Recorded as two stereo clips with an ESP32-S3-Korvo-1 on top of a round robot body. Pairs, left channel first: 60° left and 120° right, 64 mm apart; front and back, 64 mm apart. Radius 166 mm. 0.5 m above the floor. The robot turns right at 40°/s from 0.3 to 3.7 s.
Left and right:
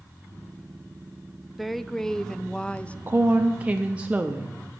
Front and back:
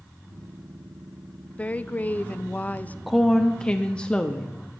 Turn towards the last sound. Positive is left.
turn(degrees=-65)